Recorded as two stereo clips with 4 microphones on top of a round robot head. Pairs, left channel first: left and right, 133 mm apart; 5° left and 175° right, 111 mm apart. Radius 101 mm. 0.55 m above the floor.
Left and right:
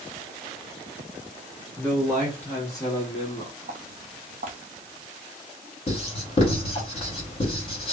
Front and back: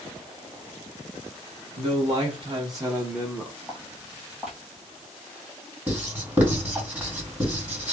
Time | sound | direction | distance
1.8 | a man speaking | 175° left | 1.2 m
3.7 | footsteps | 90° right | 0.8 m
5.9 | writing | 115° left | 1.8 m